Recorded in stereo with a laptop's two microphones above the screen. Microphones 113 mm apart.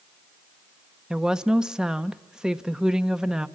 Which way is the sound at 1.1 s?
5° right (ahead or behind).